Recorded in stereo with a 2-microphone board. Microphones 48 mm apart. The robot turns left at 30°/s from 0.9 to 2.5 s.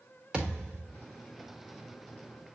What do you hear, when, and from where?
0.3 s a thud: 20° right (ahead or behind), 3.5 m